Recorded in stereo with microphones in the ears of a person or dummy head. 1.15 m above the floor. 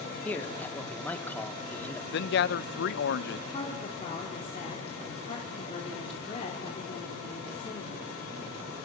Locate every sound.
0.2 s a man speaking: 15° left (ahead or behind), 2.5 m
2.1 s a man speaking: 55° left (ahead or behind), 0.9 m
3.5 s a woman speaking: 40° left (ahead or behind), 3 m